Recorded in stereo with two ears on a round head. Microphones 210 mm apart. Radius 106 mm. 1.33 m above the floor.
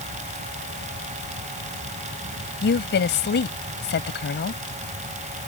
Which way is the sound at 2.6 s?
50° left (ahead or behind).